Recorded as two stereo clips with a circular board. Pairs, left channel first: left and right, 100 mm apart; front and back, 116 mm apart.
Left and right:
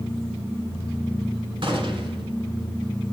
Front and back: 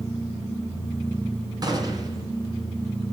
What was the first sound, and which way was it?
A gunshot, 125° right.